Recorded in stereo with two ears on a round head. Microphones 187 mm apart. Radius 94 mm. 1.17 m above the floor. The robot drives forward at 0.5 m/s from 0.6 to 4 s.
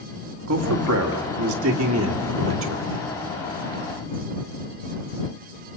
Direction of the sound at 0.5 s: 85° right.